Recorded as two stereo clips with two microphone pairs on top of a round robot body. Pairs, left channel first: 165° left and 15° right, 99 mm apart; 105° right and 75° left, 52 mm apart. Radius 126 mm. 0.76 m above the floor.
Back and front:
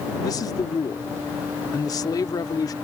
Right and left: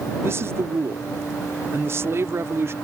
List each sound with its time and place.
0.2 s a man speaking: 110° left